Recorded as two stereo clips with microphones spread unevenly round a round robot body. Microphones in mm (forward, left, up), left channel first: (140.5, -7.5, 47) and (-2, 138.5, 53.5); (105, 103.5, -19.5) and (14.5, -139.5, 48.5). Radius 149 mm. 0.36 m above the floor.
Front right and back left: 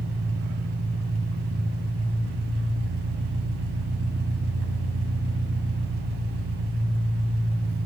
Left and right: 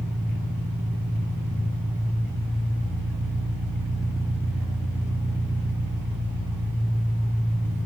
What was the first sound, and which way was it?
An engine running, 160° left.